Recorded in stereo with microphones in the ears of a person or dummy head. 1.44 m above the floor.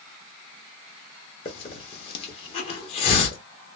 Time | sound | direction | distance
1.4 | a hiss | 35° left (ahead or behind) | 1.1 m